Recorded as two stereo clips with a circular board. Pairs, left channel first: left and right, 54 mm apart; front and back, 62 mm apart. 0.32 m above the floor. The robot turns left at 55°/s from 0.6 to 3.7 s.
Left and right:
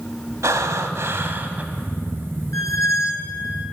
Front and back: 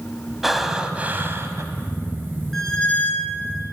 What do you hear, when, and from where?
0.4 s breathing: 95° right, 0.7 m; by 1.6 s 150° right, 0.7 m
2.5 s a squeak: 85° left, 0.9 m; by 3.4 s 35° left, 0.9 m